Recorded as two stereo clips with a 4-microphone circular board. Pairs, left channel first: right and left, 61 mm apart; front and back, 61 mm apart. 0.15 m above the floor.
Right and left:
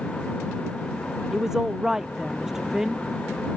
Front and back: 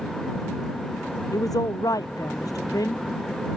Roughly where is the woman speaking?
Ahead.